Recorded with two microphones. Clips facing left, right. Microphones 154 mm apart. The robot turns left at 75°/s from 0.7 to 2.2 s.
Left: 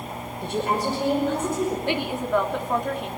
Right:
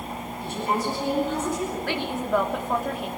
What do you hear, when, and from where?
0.4 s a woman speaking: 115° left, 5.5 m; by 1.8 s 35° left, 5.5 m
1.9 s a woman speaking: 25° left (ahead or behind), 3 m; by 3.1 s centre (ahead or behind), 3 m